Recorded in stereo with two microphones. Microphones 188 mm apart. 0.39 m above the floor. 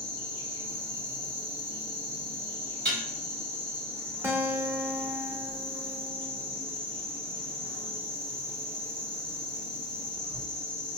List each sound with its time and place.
0.0 s an insect: 30° right (ahead or behind), 2.0 m
2.9 s dishes clattering: 70° right (ahead or behind), 1.2 m
4.2 s a guitar: 15° right (ahead or behind), 0.6 m